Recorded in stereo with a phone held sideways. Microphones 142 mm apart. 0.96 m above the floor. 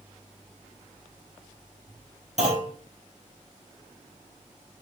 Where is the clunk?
50° right (ahead or behind), 3.5 m.